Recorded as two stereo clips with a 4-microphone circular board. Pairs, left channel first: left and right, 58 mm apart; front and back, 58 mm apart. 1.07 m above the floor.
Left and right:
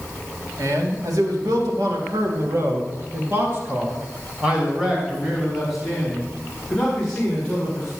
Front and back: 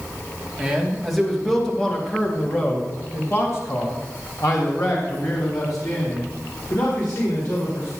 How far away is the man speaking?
About 2.5 m.